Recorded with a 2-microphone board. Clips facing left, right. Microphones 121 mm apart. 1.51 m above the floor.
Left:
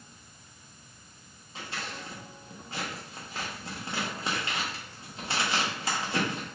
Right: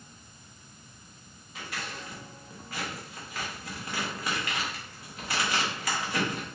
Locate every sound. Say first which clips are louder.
1.6 s scissors: even; 30° left (ahead or behind), 0.9 m